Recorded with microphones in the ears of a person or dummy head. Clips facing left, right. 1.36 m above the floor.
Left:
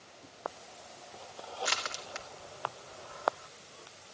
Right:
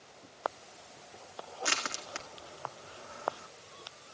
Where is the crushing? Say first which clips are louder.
Even; 40° right (ahead or behind), 1.8 m.